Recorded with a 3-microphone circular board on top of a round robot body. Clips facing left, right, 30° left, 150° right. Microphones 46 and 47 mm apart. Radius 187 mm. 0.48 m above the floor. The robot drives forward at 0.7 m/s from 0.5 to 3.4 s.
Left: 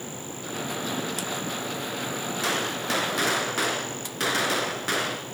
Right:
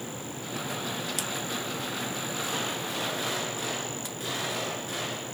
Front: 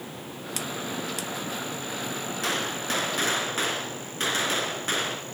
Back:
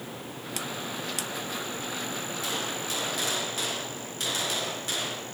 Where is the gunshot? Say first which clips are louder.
Left 7 dB, front 6 dB; 65° left, 2.5 m; by 5.2 s 85° left, 2.5 m.